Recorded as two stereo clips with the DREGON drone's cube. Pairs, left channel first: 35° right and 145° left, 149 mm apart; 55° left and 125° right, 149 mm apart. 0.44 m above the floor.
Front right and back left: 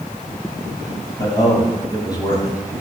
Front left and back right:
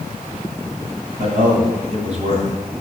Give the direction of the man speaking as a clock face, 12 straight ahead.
3 o'clock.